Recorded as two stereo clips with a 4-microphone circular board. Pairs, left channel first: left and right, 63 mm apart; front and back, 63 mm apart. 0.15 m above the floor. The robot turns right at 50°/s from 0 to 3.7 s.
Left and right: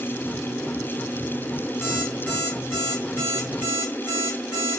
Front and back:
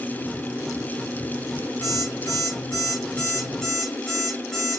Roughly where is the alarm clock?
Ahead.